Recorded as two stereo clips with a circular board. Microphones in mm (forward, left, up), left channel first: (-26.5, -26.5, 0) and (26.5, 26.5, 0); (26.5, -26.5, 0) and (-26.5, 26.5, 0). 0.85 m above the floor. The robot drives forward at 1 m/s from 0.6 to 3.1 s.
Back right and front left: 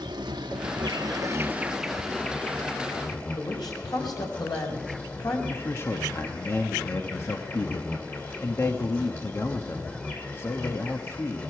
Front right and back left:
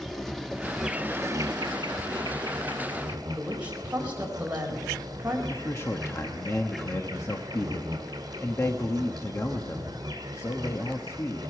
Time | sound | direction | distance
0.0 | an insect | 40° left | 0.9 m
3.4 | a woman speaking | 155° right | 4.5 m
5.5 | a man speaking | 90° right | 1.2 m